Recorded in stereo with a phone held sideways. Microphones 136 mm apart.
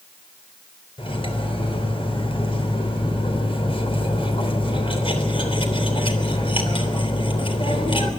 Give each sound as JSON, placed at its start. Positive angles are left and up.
{"t": 1.0, "sound": "cutlery clinking", "side_deg": 40, "distance_m": 3.5}